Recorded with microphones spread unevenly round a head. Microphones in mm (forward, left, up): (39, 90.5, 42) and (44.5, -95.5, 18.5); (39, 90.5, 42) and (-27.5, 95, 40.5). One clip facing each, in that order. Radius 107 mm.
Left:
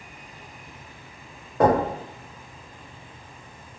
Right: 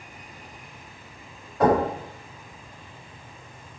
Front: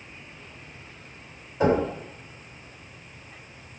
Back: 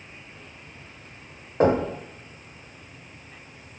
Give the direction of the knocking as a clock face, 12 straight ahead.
8 o'clock.